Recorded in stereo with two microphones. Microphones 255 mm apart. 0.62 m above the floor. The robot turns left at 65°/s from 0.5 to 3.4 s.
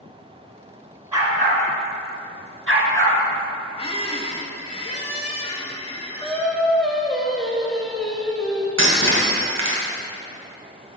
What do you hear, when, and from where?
1.1 s a dog barking: 10° right (ahead or behind), 1.6 m; by 3.2 s 35° right (ahead or behind), 1.6 m
3.8 s a squeak: 25° left (ahead or behind), 0.6 m
6.2 s singing: centre (ahead or behind), 1.0 m
8.8 s breaking glass: 85° right, 1.4 m